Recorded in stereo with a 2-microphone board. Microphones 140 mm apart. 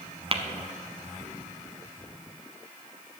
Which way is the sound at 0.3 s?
40° right (ahead or behind).